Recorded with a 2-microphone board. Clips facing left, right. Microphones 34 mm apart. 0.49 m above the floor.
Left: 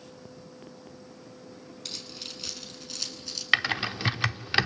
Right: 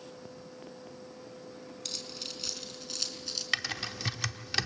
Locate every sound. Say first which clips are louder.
1.9 s keys jangling: left 1 dB; 10° left (ahead or behind), 3.5 m; by 3.4 s centre (ahead or behind), 4 m
3.5 s typing on a keyboard: left 9 dB; 35° left (ahead or behind), 0.7 m